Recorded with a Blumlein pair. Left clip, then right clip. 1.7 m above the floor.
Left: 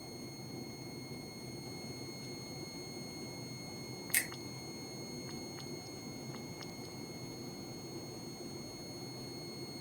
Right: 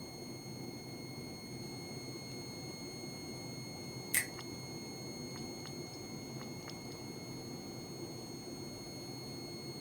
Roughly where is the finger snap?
Ahead.